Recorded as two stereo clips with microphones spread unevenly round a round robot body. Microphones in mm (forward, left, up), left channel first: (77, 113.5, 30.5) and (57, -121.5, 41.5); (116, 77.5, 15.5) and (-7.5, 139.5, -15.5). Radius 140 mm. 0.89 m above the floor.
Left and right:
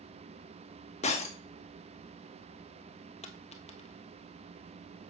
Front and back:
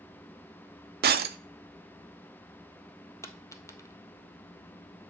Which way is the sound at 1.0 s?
155° left.